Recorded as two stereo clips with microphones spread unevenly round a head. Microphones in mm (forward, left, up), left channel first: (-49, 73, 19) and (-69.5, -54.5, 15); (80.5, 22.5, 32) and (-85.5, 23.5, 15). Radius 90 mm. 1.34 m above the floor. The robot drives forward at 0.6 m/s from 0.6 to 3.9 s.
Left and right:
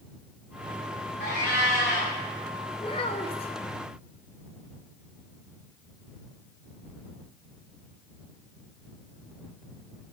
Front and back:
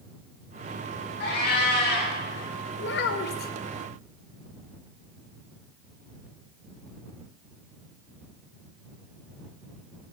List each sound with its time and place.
1.2 s a cat meowing: 25° left, 5.5 m; by 2.1 s 30° left, 5 m
2.8 s a child speaking: 15° left, 1.2 m; by 3.5 s 25° left, 0.9 m